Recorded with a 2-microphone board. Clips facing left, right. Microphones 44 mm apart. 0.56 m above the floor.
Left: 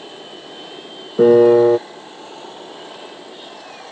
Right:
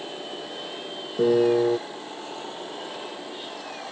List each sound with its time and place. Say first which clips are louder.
1.2 s a piano: left 10 dB; 55° left (ahead or behind)